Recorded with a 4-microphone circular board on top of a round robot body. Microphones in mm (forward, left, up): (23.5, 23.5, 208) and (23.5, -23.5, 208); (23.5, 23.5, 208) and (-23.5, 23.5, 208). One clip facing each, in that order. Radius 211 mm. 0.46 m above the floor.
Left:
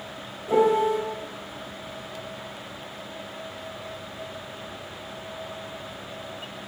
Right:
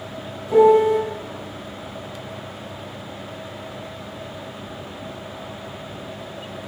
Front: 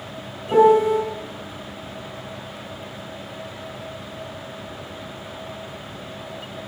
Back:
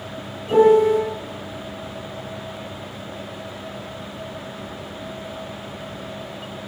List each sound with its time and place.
0.5 s a piano: 75° left, 1.6 m